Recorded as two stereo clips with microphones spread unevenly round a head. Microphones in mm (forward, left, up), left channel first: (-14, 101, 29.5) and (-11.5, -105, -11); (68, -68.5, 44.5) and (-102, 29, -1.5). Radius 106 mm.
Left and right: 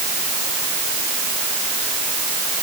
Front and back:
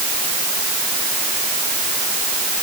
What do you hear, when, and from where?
Only background noise.